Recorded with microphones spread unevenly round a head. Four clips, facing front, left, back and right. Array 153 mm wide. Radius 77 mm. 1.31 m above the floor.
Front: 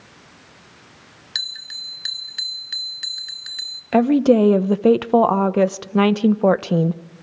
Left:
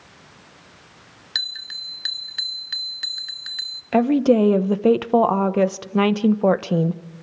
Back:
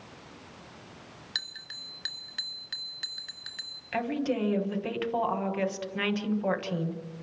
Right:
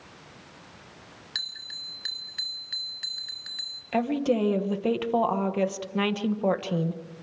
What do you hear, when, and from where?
1.4 s a bell: 80° left, 1.5 m
3.9 s a woman speaking: 30° left, 1.1 m